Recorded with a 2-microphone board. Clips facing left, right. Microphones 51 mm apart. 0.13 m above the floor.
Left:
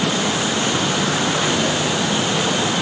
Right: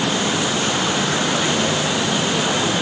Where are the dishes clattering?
No dishes clattering in this recording.